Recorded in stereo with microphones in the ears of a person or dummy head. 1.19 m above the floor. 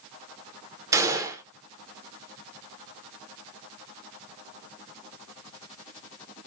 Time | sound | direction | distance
0.9 | a gunshot | 15° right (ahead or behind) | 0.7 m